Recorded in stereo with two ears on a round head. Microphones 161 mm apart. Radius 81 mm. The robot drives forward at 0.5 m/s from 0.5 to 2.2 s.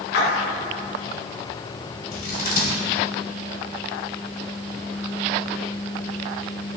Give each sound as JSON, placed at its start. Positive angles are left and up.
{"t": 0.1, "sound": "a splash", "side_deg": 70, "distance_m": 2.5}
{"t": 2.1, "sound": "scissors", "side_deg": 50, "distance_m": 1.8}